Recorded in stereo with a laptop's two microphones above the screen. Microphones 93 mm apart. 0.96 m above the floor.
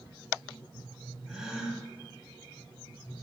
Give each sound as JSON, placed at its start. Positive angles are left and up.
{"t": 1.3, "sound": "a gasp", "side_deg": -5, "distance_m": 1.5}